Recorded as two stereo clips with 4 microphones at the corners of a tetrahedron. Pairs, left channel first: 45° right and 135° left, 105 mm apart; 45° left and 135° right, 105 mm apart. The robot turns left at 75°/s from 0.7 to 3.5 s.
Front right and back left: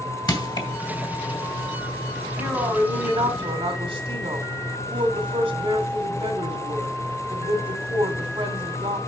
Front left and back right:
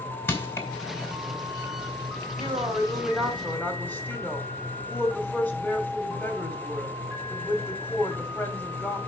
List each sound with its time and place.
0.3 s crushing: 15° right, 2.5 m
2.4 s a woman speaking: 160° right, 2 m; by 9.0 s 115° left, 2 m